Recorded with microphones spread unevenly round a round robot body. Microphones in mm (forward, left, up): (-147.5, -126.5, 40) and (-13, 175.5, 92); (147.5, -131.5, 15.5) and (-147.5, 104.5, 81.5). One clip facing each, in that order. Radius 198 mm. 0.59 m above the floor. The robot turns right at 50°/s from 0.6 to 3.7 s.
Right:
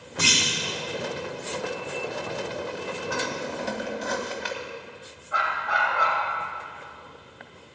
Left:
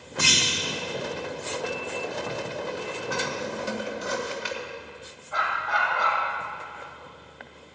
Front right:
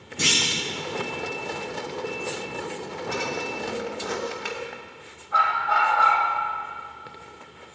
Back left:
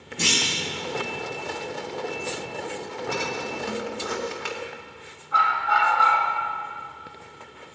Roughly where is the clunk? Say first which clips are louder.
Right 1 dB, even; ahead right.